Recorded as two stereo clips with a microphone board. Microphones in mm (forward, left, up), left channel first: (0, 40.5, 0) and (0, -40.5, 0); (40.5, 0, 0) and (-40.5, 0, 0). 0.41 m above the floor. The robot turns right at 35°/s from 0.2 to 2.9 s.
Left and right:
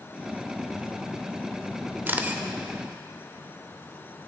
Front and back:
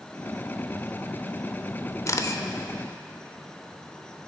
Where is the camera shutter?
35° right, 0.6 m; by 2.4 s 20° right, 0.6 m.